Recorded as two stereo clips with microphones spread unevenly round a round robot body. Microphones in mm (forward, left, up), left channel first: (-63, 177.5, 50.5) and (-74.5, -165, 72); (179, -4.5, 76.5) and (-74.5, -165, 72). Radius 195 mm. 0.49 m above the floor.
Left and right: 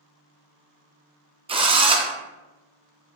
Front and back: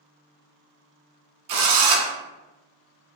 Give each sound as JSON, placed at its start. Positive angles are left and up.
{"t": 1.5, "sound": "a drill", "azimuth_deg": -170, "distance_m": 0.6}